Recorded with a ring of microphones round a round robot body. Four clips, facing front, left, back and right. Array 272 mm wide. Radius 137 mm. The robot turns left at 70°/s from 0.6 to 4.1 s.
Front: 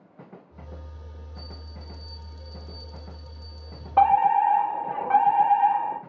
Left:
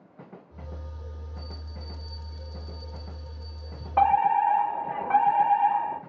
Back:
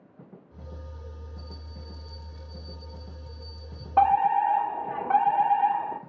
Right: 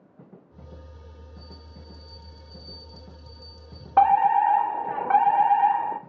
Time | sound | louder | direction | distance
1.4 | a bell | left 3 dB, front 1 dB | 105° left | 5 m
4.0 | a fire alarm | right 3 dB, front 2 dB | 75° right | 2 m